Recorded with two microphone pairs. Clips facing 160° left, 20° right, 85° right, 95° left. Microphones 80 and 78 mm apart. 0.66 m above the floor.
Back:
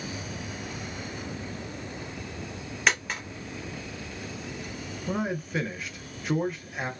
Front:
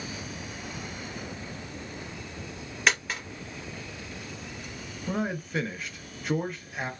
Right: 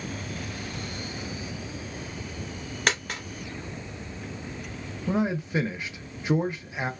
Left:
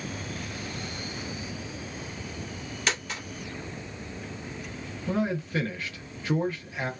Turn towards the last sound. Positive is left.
turn(degrees=-115)